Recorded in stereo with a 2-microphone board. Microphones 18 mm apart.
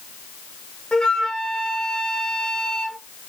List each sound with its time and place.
0.9 s a flute: 55° left (ahead or behind), 1.2 m